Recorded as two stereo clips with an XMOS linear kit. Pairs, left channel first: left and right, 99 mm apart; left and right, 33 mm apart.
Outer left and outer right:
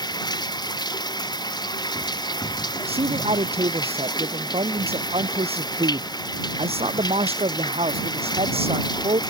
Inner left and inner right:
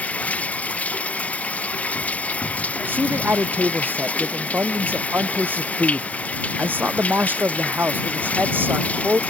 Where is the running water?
45° left (ahead or behind).